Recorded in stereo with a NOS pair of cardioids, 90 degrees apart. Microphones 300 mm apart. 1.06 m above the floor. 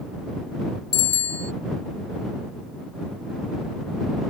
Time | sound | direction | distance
0.9 | a bicycle bell | 35° left | ?